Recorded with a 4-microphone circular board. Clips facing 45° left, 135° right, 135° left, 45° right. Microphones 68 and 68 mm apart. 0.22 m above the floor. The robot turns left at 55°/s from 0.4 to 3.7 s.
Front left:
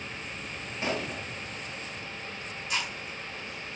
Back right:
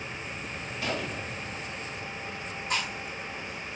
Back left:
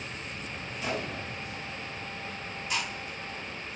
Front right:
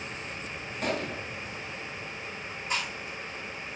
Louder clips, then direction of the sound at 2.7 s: Back right 2 dB, front right 1 dB; 95° right.